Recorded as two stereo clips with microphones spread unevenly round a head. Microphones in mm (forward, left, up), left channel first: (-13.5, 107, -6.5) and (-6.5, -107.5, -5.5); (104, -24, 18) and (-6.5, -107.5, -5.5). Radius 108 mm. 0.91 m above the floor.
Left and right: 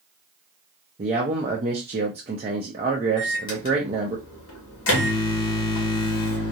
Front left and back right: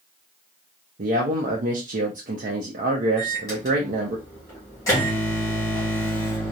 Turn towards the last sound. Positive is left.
turn(degrees=115)